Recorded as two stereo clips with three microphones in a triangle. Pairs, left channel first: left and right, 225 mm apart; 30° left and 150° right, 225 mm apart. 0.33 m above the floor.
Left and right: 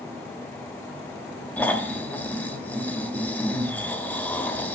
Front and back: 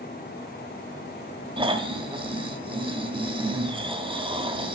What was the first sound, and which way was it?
Snoring, 165° left.